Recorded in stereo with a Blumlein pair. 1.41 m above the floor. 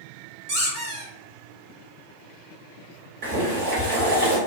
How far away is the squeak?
About 1.5 m.